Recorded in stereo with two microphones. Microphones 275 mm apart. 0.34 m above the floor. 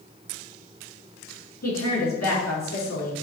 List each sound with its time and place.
1.6 s a woman speaking: 70° left (ahead or behind), 4 m